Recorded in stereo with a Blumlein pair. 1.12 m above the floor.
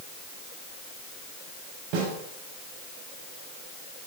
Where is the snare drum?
45° right, 5 m.